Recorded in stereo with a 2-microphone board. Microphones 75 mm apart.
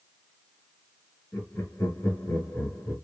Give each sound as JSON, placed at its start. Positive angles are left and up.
{"t": 1.3, "sound": "laughter", "side_deg": 30, "distance_m": 2.0}